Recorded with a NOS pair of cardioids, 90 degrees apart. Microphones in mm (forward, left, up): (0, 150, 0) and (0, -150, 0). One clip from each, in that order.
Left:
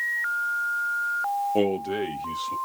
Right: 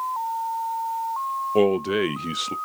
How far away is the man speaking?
About 0.6 m.